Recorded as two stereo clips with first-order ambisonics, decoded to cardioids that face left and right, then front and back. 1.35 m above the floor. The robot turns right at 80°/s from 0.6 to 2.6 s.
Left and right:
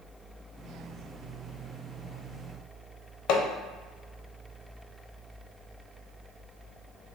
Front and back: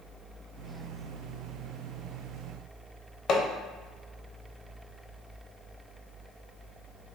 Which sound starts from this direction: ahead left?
Hammering, at 3.3 s.